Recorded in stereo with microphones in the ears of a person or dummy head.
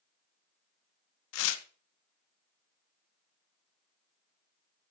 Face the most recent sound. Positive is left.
turn(degrees=80)